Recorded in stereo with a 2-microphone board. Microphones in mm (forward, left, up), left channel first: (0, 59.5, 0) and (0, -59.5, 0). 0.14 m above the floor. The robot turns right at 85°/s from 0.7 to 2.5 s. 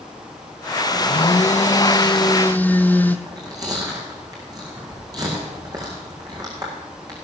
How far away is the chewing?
About 4 m.